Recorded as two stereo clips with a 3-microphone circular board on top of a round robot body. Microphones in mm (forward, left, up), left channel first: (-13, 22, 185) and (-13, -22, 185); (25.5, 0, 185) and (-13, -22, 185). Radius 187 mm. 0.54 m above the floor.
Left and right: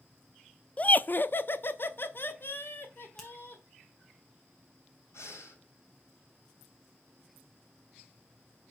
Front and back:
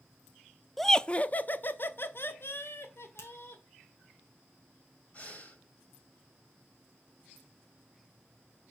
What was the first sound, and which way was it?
Laughter, 115° left.